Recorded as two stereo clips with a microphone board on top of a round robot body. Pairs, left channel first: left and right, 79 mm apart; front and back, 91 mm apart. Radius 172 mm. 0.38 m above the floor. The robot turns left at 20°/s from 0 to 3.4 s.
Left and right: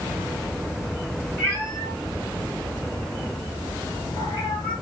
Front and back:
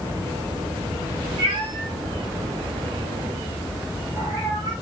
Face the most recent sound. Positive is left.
turn(degrees=125)